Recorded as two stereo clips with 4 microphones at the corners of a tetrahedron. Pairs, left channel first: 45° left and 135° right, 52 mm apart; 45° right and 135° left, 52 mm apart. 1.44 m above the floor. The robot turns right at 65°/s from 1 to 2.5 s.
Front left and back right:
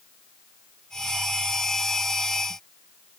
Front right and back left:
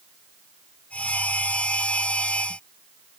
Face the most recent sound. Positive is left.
No sound to turn to.